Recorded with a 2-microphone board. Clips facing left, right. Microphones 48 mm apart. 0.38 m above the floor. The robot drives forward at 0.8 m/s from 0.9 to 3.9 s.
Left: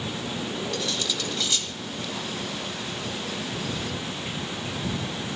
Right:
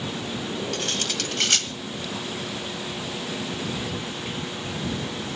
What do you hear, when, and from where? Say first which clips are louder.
0.7 s cutlery clinking: right 1 dB; 50° right (ahead or behind), 1.6 m; by 1.7 s 60° right (ahead or behind), 1.4 m